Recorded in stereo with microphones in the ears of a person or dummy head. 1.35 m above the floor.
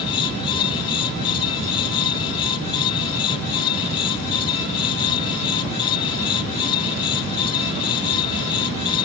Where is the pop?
No pop in this recording.